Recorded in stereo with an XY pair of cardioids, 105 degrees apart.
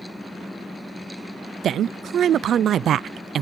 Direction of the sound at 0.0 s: 5° left.